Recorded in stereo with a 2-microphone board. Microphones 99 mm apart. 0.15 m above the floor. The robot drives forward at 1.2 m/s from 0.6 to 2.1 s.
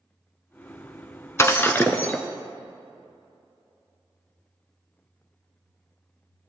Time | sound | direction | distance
1.4 | breaking glass | 30° left (ahead or behind) | 0.7 m